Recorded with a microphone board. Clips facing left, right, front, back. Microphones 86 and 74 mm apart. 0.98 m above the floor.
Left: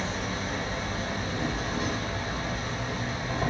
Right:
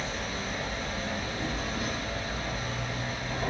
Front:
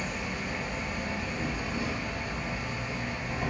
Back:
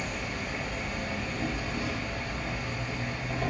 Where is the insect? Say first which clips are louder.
Left 3 dB, even; 85° left, 2 m.